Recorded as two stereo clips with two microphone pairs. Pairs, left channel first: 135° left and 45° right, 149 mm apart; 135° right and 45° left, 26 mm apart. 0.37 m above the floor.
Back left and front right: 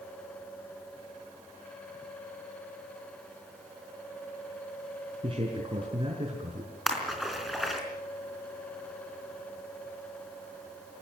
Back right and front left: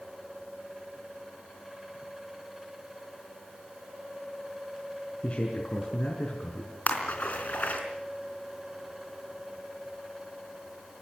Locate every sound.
5.2 s a man speaking: 100° right, 5.5 m
6.9 s a splash: 135° right, 4 m